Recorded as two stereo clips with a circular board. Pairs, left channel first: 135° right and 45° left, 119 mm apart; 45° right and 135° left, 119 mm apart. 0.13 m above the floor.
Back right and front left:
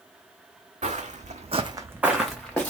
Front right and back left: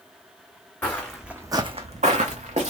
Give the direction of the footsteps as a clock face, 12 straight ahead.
11 o'clock.